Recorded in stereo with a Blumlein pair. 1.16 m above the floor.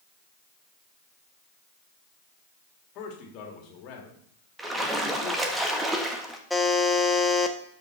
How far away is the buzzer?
About 1.1 m.